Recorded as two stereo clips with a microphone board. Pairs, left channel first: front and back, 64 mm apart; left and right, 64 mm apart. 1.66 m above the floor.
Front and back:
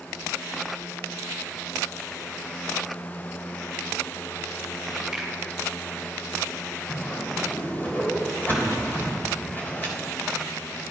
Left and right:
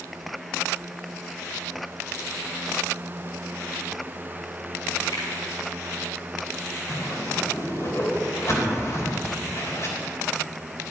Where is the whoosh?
55° left, 3 m.